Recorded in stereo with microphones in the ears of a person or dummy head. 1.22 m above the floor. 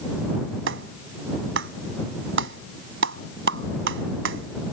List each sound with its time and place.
0.7 s a clap: 65° right (ahead or behind)